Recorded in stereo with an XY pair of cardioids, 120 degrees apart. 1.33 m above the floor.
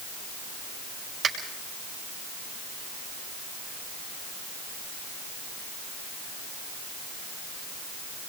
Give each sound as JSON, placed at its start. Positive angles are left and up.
{"t": 1.2, "sound": "a finger snap", "azimuth_deg": -50, "distance_m": 5.5}